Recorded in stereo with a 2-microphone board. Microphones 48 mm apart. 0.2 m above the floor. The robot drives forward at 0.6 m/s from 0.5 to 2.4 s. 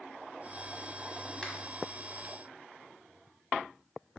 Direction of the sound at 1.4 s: 15° left (ahead or behind).